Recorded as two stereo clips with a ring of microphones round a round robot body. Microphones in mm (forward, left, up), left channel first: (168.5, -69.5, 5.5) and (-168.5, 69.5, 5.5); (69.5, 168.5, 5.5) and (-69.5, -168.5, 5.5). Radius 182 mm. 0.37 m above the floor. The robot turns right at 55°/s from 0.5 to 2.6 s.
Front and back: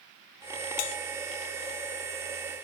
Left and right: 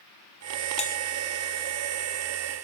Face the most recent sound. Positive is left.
turn(degrees=95)